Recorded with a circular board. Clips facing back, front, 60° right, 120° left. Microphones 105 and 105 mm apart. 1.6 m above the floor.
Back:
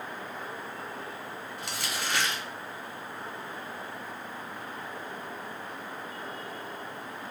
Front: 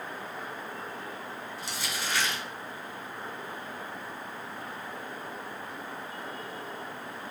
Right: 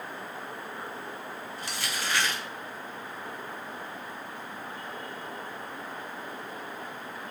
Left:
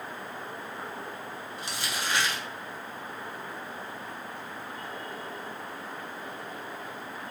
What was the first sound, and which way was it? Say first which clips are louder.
Crumpling: back 2 dB, left 1 dB; 175° right.